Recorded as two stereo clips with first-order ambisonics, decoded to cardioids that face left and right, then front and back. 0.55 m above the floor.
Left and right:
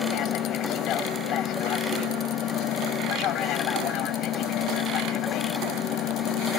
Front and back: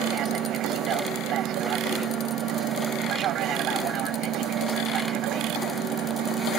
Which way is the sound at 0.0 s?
140° left.